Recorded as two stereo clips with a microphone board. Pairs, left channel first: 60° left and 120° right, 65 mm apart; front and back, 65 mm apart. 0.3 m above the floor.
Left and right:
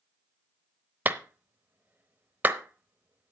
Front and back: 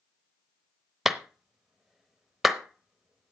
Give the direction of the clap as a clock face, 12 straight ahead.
3 o'clock.